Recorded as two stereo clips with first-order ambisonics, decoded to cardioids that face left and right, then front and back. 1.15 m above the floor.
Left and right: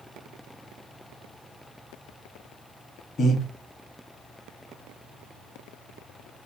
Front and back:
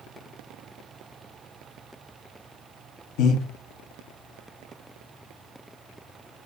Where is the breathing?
25° left, 0.6 m.